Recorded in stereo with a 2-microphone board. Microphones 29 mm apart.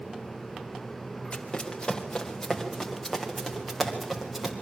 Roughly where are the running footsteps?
Left.